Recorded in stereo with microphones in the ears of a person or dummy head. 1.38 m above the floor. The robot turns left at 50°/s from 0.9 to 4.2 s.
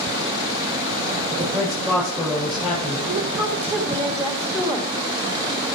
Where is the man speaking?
140° right, 7 m; by 3.0 s 135° left, 7 m.